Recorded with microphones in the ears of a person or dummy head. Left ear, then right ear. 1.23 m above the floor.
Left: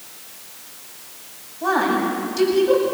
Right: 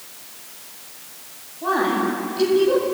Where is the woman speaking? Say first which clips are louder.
Left 1 dB; 85° left, 9.5 m.